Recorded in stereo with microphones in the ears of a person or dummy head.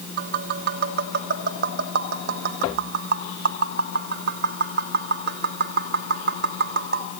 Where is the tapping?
55° right (ahead or behind), 1.2 m.